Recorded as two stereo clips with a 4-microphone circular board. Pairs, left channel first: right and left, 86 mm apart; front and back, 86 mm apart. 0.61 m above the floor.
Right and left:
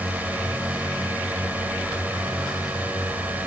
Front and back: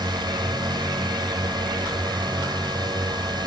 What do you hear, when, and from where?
0.0 s a drone: 160° left